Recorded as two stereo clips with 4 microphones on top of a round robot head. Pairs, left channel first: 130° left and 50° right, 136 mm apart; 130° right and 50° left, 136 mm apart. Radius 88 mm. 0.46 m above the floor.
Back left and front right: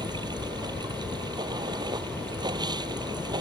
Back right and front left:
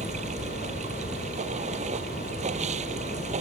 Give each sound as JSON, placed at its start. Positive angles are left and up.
{"t": 0.0, "sound": "running water", "azimuth_deg": 10}